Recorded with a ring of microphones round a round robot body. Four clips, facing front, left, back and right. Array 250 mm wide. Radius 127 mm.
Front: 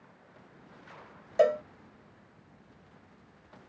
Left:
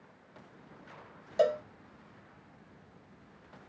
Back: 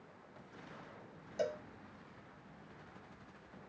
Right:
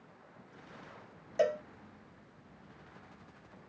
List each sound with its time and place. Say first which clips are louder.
1.4 s a cowbell: left 3 dB, front 14 dB; 15° left